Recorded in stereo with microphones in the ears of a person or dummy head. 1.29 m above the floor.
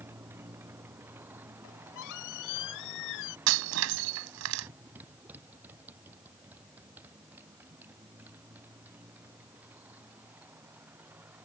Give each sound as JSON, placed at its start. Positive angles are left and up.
{"t": 0.0, "sound": "a motorcycle", "side_deg": -15}
{"t": 1.6, "sound": "a squeak", "side_deg": 70}
{"t": 3.5, "sound": "breaking glass", "side_deg": -80}